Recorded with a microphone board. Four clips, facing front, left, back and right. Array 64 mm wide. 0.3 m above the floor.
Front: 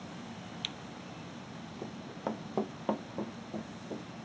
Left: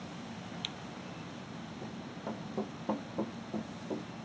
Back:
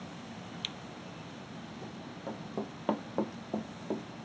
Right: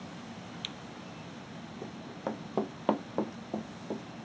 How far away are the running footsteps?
About 0.9 m.